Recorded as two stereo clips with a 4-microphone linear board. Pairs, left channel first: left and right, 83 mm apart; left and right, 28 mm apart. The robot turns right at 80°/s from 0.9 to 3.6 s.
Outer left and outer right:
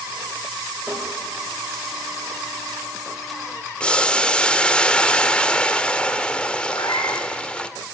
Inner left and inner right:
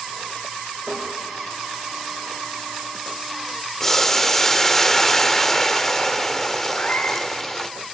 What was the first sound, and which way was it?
Tapping, 15° right (ahead or behind).